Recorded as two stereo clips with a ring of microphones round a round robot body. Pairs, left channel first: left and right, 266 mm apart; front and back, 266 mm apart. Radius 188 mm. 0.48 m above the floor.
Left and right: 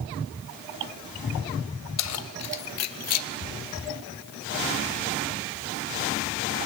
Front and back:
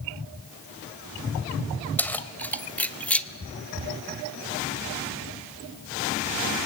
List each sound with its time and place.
2.0 s keys jangling: 85° left, 1.9 m